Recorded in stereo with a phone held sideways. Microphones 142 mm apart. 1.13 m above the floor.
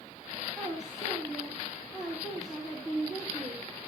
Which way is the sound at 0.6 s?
Centre (ahead or behind).